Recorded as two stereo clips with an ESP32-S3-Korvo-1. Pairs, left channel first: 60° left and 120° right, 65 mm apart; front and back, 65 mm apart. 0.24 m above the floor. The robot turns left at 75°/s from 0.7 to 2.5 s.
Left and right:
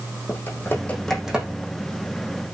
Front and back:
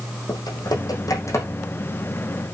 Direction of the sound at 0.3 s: 5° left.